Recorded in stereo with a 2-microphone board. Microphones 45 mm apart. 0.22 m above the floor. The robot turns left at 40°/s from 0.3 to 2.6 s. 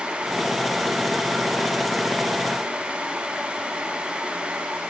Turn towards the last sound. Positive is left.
No sound to turn to.